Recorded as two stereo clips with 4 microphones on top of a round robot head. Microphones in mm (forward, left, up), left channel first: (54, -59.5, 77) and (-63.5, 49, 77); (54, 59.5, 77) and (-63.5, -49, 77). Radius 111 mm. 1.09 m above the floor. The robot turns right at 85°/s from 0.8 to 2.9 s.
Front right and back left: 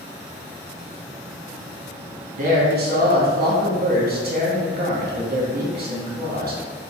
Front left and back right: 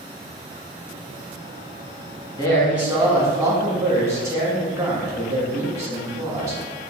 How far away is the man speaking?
About 1.2 m.